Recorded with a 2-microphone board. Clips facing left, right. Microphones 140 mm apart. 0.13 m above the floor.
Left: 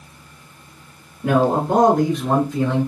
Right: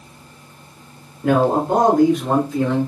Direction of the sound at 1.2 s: 15° right (ahead or behind).